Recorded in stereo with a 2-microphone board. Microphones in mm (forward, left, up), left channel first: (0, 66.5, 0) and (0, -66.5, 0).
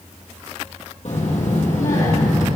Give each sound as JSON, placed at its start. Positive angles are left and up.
{"t": 1.1, "sound": "a child speaking", "side_deg": 65, "distance_m": 3.5}